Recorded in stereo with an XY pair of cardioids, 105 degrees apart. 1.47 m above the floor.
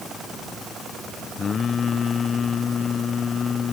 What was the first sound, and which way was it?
Singing, 45° left.